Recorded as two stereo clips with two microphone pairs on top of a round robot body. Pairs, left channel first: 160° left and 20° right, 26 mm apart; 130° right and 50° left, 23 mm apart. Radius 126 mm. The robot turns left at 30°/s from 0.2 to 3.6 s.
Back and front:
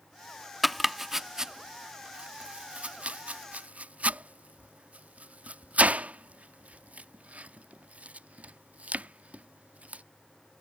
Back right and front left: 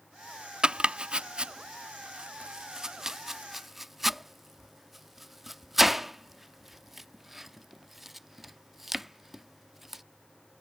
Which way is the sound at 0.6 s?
65° left.